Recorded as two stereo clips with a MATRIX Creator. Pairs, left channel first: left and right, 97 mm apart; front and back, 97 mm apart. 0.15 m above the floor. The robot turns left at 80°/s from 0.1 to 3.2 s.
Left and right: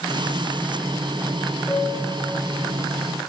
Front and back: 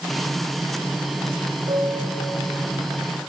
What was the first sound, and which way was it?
A piano, 160° left.